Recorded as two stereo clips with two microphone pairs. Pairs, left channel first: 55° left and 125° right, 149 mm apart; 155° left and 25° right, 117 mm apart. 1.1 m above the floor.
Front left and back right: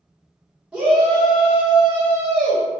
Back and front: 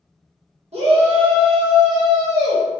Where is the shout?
45° right, 0.9 m; by 2.6 s 100° right, 1.3 m.